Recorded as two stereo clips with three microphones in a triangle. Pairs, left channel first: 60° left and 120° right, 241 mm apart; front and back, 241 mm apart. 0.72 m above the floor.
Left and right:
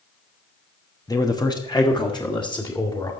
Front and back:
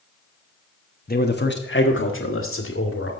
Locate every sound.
1.1 s a man speaking: 5° right, 1.2 m; by 3.1 s 10° right, 2.5 m